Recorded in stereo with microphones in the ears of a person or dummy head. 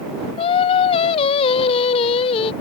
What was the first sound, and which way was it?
Singing, 30° left (ahead or behind).